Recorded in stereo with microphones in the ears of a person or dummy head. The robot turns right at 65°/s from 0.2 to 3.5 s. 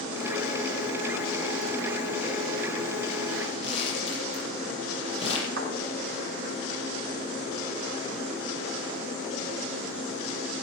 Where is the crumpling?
35° left (ahead or behind), 7 m.